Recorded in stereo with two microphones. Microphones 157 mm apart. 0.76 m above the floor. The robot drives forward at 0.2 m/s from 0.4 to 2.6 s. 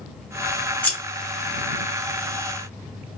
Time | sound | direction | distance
0.8 | scissors | 10° left (ahead or behind) | 1.2 m